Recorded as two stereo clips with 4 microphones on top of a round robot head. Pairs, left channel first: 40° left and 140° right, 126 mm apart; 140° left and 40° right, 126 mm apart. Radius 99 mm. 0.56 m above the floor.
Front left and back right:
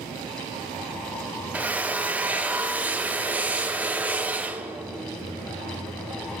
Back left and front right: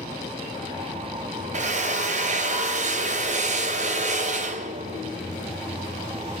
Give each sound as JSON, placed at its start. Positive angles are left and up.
{"t": 1.5, "sound": "a drill", "azimuth_deg": -60, "distance_m": 3.0}